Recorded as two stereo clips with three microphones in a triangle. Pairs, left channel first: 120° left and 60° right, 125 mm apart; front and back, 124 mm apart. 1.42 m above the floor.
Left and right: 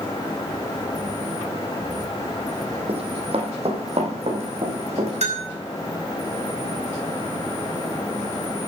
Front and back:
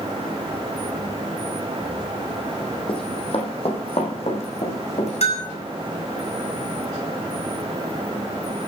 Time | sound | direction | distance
2.9 | running footsteps | 35° right | 2.5 m
5.2 | a bell | 30° right | 4 m